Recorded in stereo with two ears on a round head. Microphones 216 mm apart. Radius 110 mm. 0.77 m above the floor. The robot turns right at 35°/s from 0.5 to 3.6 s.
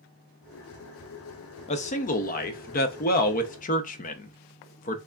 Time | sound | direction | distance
1.7 | a man speaking | 50° left | 0.5 m